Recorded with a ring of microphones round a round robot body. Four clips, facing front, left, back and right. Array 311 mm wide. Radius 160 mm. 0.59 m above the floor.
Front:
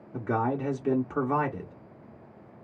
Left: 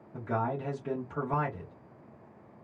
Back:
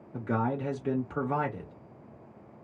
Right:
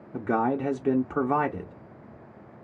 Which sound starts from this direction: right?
A man speaking, at 0.1 s.